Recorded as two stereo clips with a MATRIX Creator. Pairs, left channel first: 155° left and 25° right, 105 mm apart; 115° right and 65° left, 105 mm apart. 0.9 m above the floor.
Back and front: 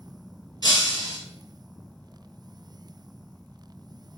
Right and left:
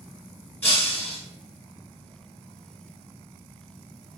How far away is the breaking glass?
About 1.0 m.